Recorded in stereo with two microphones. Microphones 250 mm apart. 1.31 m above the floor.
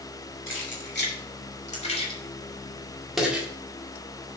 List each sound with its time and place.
0.5 s keys jangling: 50° left (ahead or behind), 2.5 m; by 3.5 s 5° right (ahead or behind), 2 m